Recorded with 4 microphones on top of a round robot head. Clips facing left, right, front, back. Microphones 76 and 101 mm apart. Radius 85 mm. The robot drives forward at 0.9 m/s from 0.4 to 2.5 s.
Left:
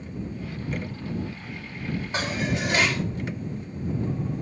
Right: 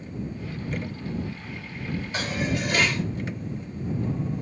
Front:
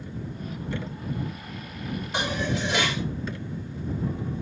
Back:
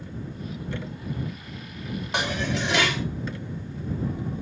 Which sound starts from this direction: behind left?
Dishes clattering, at 2.1 s.